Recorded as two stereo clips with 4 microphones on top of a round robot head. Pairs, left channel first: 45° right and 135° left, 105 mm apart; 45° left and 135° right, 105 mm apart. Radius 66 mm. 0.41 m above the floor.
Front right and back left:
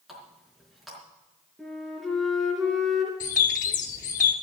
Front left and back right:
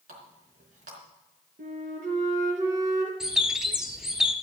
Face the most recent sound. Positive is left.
turn(degrees=-50)